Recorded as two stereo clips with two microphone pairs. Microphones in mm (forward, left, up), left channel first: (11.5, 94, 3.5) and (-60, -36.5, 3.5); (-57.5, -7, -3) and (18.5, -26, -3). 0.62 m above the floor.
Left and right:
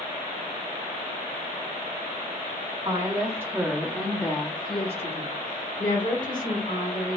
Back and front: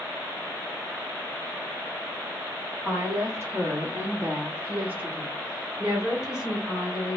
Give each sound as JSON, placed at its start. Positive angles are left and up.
{"t": 2.9, "sound": "a woman speaking", "azimuth_deg": -65, "distance_m": 1.2}